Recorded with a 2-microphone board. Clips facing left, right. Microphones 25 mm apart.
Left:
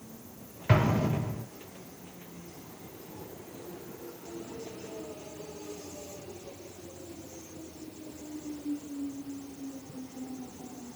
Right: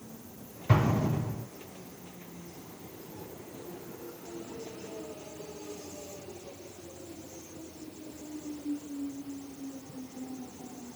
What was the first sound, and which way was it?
An explosion, 40° left (ahead or behind).